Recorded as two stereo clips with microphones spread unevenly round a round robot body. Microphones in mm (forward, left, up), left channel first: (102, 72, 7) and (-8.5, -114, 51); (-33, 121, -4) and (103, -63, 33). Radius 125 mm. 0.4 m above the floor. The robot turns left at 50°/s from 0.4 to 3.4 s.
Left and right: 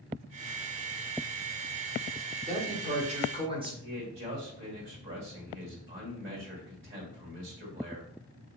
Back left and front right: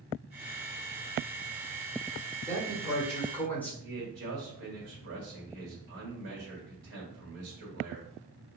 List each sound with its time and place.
2.5 s a man speaking: 135° right, 1.2 m; by 3.7 s 175° left, 1.2 m
3.8 s a man speaking: 70° right, 1.7 m